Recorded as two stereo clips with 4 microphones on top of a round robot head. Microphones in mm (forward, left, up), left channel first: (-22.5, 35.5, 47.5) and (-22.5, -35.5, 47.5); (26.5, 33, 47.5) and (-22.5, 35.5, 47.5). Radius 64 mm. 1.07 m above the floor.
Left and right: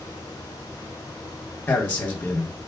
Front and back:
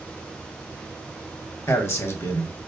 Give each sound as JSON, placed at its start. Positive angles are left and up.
{"t": 1.7, "sound": "a man speaking", "azimuth_deg": 25, "distance_m": 0.9}